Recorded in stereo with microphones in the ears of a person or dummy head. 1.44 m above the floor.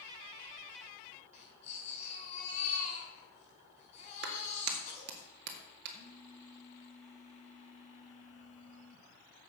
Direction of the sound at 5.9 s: 45° left (ahead or behind).